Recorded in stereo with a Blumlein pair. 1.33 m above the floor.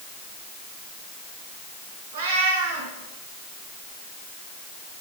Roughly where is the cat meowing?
Right.